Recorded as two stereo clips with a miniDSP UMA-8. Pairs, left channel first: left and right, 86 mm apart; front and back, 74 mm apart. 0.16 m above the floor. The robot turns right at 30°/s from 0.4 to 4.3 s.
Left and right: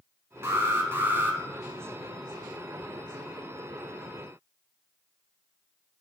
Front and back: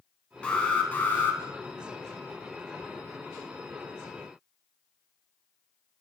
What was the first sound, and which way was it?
An alarm, 65° right.